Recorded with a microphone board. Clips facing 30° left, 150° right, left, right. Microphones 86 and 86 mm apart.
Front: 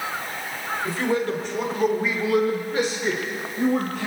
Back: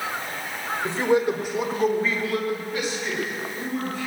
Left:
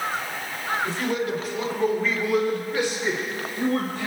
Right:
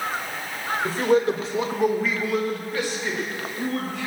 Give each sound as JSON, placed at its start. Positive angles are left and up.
{"t": 0.8, "sound": "a man speaking", "azimuth_deg": -105, "distance_m": 1.9}